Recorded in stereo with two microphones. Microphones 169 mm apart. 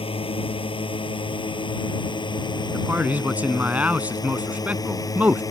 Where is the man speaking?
10° right (ahead or behind).